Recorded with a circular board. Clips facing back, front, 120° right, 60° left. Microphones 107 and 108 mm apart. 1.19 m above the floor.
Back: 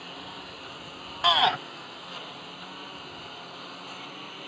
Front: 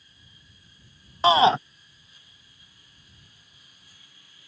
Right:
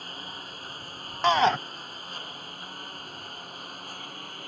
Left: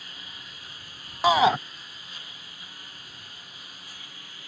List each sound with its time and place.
0.0 s a lawn mower: 170° right; by 4.5 s 160° right
1.2 s a shout: 10° right